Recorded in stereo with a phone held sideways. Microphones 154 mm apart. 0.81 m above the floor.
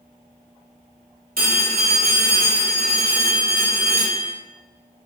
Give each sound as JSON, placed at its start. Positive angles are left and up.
{"t": 1.4, "sound": "a phone ringing", "side_deg": -65, "distance_m": 1.1}